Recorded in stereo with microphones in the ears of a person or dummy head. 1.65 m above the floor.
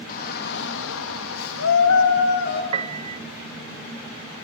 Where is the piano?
40° right (ahead or behind), 0.8 m.